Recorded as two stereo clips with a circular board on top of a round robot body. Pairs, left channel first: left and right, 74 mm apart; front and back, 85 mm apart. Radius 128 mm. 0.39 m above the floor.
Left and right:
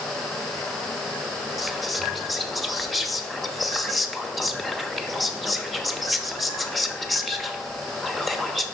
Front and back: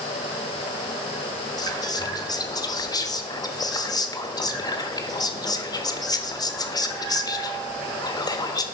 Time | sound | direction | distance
1.6 | whispering | straight ahead | 1.1 m